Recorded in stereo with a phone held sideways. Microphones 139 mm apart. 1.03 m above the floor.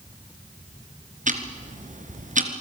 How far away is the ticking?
About 2.5 m.